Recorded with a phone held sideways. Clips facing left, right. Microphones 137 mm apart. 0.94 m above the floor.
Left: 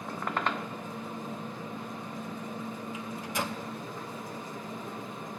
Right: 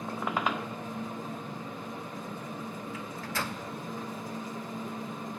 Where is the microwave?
15° left (ahead or behind), 0.8 m.